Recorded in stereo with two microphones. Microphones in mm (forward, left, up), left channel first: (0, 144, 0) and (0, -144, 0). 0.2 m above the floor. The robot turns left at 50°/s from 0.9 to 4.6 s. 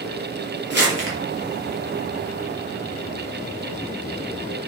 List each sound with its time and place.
0.7 s crumpling: 40° right (ahead or behind), 5 m; by 1.1 s 50° right (ahead or behind), 5 m